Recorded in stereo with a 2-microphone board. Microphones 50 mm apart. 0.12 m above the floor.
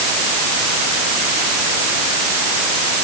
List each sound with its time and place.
Only background noise.